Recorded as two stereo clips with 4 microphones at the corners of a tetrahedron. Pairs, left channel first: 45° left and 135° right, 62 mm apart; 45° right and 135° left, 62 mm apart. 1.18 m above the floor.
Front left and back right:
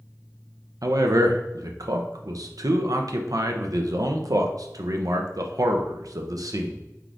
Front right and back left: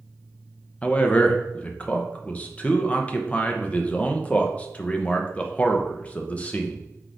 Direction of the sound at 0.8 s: 115° right.